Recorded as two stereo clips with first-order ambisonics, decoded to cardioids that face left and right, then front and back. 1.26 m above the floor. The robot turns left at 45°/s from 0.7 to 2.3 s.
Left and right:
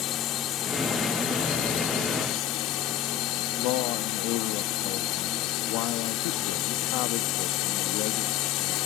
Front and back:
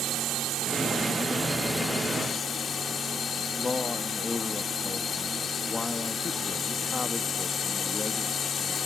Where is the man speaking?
75° left.